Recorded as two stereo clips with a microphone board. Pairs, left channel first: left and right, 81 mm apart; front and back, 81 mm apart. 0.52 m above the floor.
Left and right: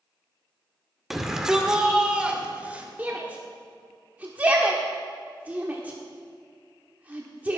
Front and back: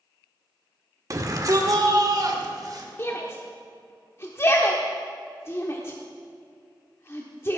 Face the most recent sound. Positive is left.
turn(degrees=-30)